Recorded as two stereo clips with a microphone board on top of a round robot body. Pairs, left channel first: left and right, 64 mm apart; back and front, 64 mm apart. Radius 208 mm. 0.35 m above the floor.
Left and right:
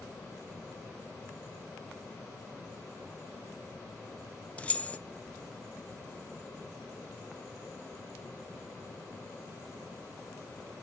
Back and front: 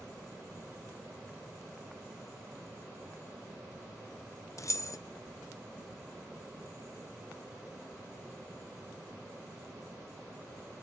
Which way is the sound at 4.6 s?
155° left.